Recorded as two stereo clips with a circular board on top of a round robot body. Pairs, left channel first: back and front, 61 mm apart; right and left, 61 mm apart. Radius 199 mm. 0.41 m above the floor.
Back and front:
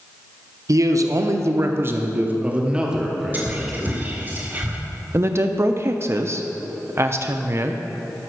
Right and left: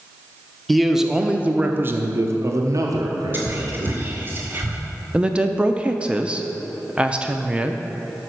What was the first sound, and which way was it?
A man speaking, 5° right.